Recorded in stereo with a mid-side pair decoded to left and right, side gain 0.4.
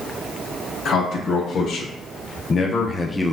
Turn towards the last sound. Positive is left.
turn(degrees=10)